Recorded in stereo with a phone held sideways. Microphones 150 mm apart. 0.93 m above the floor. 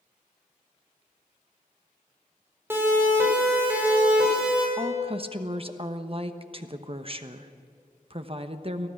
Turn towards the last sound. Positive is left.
turn(degrees=-40)  # may be behind; listen again after turning